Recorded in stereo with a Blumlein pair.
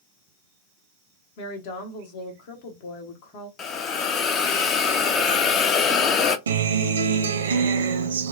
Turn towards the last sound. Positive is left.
turn(degrees=-65)